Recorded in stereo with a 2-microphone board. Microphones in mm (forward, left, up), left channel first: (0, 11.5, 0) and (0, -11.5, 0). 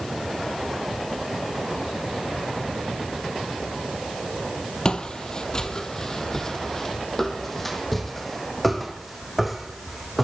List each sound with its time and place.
4.8 s footsteps: 40° left (ahead or behind), 2 m; by 10.2 s 5° right (ahead or behind), 4 m